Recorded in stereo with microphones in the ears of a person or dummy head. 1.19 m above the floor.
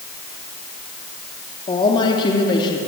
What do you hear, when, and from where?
1.7 s a woman speaking: 25° left (ahead or behind), 3 m